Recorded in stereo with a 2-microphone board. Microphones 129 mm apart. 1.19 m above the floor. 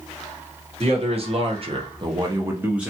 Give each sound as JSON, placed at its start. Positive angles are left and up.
{"t": 0.8, "sound": "a man speaking", "side_deg": -50, "distance_m": 1.1}